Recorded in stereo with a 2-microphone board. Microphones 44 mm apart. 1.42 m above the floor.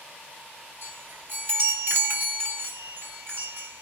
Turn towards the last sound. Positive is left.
turn(degrees=-60)  # may be behind; listen again after turning